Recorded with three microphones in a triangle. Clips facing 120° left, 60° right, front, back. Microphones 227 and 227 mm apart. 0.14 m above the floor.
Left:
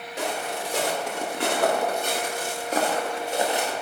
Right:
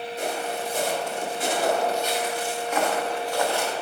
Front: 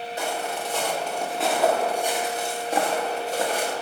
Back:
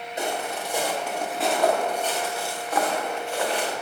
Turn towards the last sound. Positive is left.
turn(degrees=45)